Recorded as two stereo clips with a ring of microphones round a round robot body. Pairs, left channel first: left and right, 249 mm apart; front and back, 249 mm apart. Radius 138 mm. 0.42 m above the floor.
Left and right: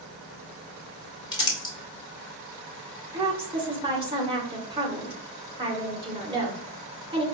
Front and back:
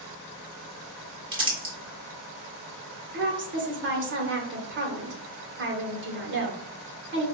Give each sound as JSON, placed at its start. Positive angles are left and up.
{"t": 1.3, "sound": "crumpling", "azimuth_deg": 135, "distance_m": 1.5}
{"t": 3.1, "sound": "a woman speaking", "azimuth_deg": -155, "distance_m": 1.4}